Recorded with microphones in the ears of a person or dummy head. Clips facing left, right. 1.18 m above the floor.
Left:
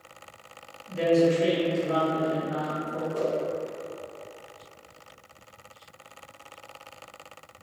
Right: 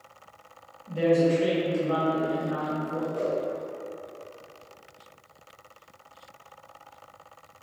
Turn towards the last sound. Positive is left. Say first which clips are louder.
# left 2 dB
turn(degrees=25)  # may be behind; listen again after turning